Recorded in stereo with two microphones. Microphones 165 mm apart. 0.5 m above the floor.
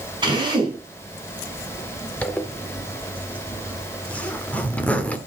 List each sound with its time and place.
0.2 s a drill: 25° right (ahead or behind), 5 m
2.2 s a zipper: 10° left (ahead or behind), 1.3 m